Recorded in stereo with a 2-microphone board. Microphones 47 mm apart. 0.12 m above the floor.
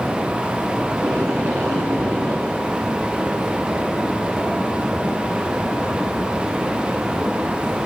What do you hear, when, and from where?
0.9 s tape being pulled: 60° right (ahead or behind), 6.5 m